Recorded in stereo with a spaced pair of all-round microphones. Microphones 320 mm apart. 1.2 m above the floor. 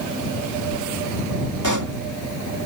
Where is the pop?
65° right (ahead or behind).